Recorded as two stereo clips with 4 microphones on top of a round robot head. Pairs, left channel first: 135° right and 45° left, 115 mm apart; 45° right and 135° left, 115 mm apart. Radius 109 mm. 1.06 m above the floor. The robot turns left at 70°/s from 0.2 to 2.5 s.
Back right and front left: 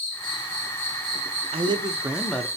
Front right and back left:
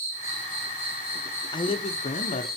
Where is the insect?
160° right, 2 m; by 2.6 s 40° left, 2 m.